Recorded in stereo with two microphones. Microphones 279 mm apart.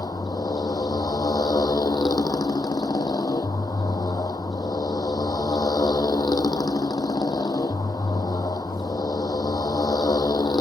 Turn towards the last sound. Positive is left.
turn(degrees=15)  # may be behind; listen again after turning